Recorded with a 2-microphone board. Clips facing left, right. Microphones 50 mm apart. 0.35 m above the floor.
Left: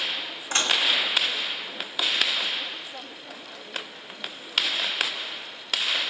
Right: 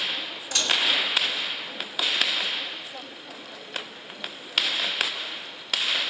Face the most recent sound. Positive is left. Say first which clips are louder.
# left 1 dB
turn(degrees=30)  # may be behind; listen again after turning